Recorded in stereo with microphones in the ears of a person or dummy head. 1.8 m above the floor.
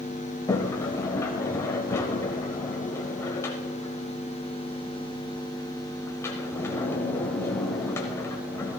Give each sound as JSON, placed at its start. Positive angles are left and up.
{"t": 0.5, "sound": "a sliding door", "side_deg": 15, "distance_m": 1.2}